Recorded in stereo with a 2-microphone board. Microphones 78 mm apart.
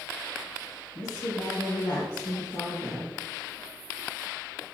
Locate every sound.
0.9 s a woman speaking: 50° left (ahead or behind), 2.5 m; by 3.1 s 55° left (ahead or behind), 4 m